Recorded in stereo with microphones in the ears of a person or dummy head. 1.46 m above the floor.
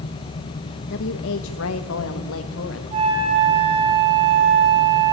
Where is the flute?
35° right (ahead or behind), 4.5 m.